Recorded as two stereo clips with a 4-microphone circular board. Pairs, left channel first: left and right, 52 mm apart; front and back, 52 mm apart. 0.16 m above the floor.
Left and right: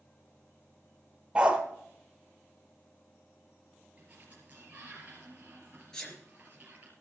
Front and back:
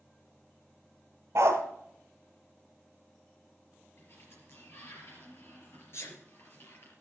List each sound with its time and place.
1.4 s a dog barking: 160° right, 1.5 m
4.0 s a sliding door: 35° right, 3.5 m
5.9 s a sneeze: 15° left, 3.5 m